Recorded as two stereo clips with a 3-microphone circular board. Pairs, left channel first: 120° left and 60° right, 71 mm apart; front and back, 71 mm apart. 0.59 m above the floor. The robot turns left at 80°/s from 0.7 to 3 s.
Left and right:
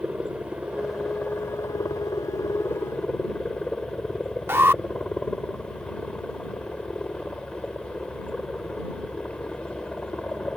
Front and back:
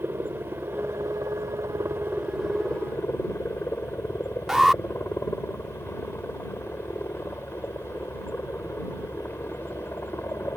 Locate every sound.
0.0 s a helicopter: 130° right; by 10.6 s 50° left
4.5 s an alarm: 95° right